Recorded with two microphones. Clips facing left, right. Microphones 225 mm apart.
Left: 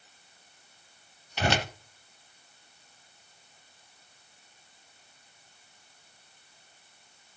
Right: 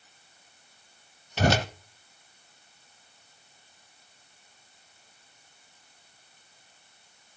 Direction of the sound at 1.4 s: 40° right (ahead or behind).